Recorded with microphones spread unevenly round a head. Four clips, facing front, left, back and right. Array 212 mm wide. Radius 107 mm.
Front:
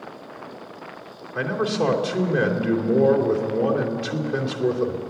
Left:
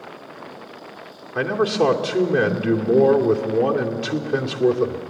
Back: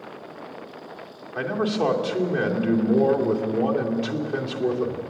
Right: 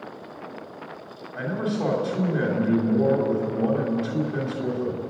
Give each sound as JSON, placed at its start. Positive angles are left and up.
{"t": 1.4, "sound": "a man speaking", "azimuth_deg": 90, "distance_m": 2.5}